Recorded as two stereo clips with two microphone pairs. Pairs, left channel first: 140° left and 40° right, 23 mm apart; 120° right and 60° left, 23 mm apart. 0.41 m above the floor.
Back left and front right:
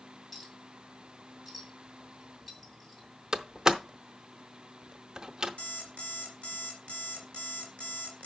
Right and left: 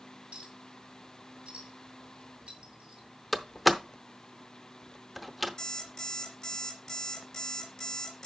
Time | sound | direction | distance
0.3 | a clink | 60° left | 2 m
3.3 | a door slam | 20° right | 0.7 m
5.6 | an alarm clock | 170° left | 2.5 m